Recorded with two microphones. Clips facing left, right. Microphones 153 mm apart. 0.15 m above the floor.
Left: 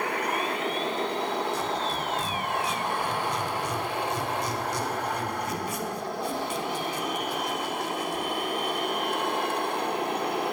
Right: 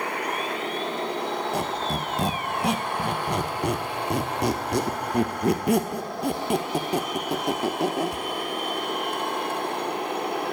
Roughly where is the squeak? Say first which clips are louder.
Right 2 dB; right.